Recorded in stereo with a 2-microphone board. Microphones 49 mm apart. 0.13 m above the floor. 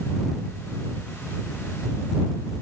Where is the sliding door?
I don't hear a sliding door.